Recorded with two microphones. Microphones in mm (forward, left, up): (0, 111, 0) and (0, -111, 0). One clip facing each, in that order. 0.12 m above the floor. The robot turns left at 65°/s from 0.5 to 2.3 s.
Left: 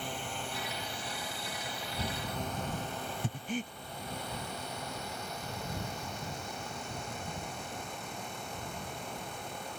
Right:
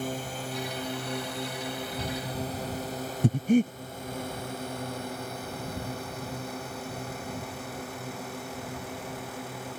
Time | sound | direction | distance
0.0 | a drone | 45° right (ahead or behind) | ?
3.2 | breathing | 60° right (ahead or behind) | ?